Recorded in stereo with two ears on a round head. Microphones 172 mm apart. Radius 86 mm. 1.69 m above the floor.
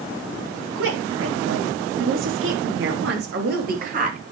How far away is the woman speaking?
About 5 m.